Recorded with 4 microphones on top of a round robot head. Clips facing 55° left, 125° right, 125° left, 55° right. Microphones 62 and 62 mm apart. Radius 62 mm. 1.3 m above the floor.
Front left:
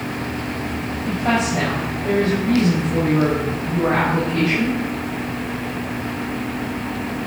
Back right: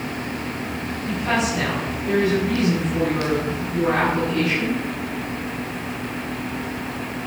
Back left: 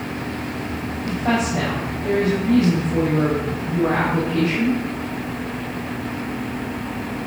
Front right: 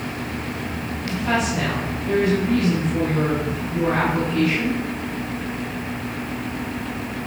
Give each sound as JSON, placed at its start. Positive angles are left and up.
{"t": 1.0, "sound": "a woman speaking", "azimuth_deg": 95, "distance_m": 6.0}